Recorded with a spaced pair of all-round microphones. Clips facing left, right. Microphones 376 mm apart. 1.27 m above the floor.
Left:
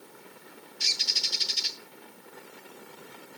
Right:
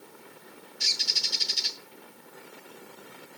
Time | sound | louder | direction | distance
0.8 | a bird | even | 60° right (ahead or behind) | 6.5 m